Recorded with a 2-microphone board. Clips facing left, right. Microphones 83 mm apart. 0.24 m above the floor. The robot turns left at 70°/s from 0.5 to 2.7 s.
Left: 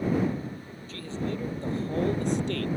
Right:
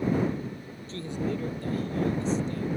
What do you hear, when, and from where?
0.9 s a man speaking: 145° right; by 2.7 s 90° left